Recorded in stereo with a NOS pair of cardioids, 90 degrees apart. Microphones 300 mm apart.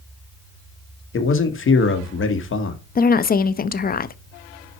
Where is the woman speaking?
30° left, 0.7 m.